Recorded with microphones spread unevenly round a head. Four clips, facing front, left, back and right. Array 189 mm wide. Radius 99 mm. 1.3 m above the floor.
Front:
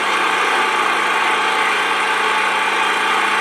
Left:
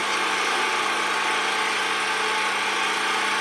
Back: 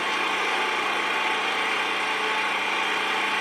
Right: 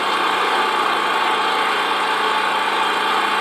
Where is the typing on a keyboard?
No typing on a keyboard in this recording.